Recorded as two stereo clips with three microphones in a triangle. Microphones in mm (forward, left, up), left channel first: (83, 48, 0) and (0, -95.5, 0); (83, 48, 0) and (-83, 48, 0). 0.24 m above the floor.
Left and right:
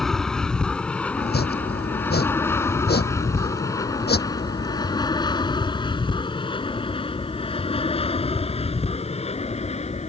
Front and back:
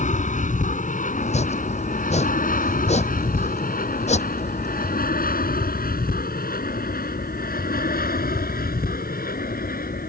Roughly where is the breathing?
I don't hear breathing.